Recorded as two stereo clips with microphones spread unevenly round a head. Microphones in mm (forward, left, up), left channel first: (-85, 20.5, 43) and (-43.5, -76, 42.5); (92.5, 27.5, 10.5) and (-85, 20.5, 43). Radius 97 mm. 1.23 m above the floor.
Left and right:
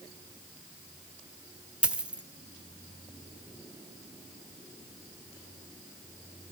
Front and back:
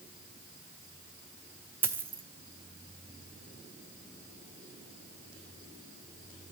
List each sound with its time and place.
1.8 s a dropped coin: 135° right, 0.8 m